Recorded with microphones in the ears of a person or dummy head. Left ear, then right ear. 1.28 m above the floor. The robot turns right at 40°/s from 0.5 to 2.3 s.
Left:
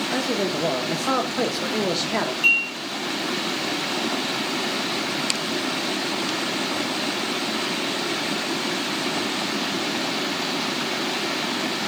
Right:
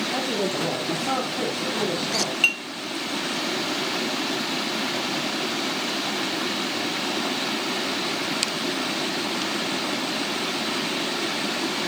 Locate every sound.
0.1 s a man speaking: 10° left, 1.0 m; by 2.3 s 80° left, 1.0 m
2.4 s dishes clattering: 35° right (ahead or behind), 2.5 m